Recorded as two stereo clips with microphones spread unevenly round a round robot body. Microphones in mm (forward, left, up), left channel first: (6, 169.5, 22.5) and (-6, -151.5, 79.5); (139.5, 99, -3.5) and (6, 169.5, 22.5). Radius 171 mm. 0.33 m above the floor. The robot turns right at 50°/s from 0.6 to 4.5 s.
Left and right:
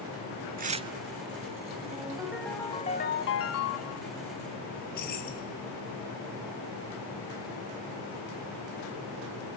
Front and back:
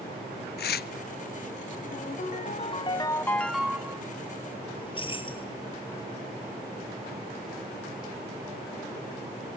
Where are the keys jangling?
25° left, 5 m.